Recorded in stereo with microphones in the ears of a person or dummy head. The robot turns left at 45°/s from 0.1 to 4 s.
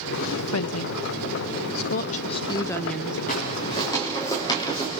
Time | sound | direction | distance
0.5 | a woman speaking | 65° left (ahead or behind) | 0.5 m
3.3 | footsteps | 45° left (ahead or behind) | 6.5 m